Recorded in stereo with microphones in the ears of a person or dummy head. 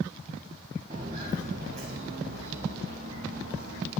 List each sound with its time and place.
0.9 s footsteps: 20° right (ahead or behind), 1.6 m; by 3.9 s 40° right (ahead or behind), 4 m